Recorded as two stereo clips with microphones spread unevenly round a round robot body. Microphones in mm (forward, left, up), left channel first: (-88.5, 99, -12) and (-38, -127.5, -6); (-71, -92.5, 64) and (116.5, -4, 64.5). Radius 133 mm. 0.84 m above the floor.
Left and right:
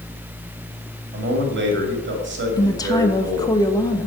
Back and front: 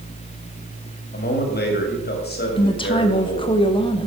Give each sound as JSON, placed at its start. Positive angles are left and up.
{"t": 1.1, "sound": "a man speaking", "azimuth_deg": -115, "distance_m": 2.0}
{"t": 2.6, "sound": "a woman speaking", "azimuth_deg": 160, "distance_m": 0.9}